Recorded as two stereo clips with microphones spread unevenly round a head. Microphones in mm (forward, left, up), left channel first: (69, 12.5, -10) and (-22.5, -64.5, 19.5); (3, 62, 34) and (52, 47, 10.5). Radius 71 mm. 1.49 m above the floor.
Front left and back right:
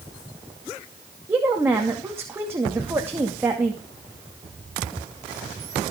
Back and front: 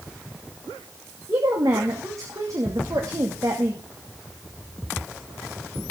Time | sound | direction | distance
1.3 | a woman speaking | 70° right | 2.5 m